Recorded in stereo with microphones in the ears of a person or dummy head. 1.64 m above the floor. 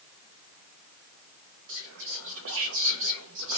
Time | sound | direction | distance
1.7 | whispering | 75° right (ahead or behind) | 0.6 m